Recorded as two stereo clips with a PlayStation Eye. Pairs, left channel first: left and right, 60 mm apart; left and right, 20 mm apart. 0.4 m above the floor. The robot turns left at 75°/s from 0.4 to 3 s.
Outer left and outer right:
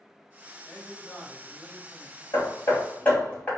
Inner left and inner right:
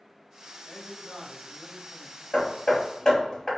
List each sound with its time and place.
0.7 s a man speaking: 5° left (ahead or behind), 1.3 m; by 2.2 s 20° right (ahead or behind), 1.3 m
2.3 s hammering: 65° left (ahead or behind), 1.7 m; by 3.5 s 25° left (ahead or behind), 1.7 m